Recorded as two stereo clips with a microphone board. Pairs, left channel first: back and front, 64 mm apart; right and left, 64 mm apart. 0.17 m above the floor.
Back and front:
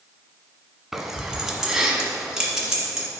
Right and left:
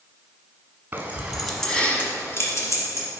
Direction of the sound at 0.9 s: 85° left.